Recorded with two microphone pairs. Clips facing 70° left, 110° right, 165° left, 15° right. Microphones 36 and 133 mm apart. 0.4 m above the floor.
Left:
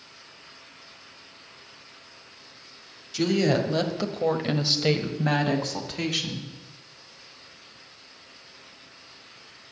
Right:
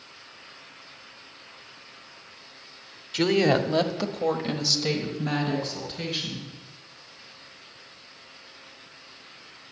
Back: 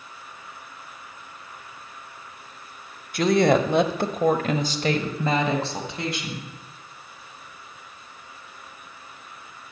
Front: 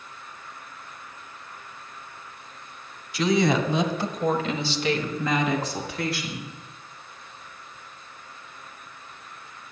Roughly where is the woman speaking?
Behind.